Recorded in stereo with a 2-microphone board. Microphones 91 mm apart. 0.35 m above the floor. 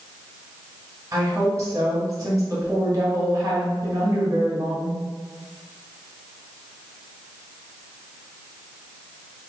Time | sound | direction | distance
1.1 | a woman speaking | 35° right (ahead or behind) | 1.5 m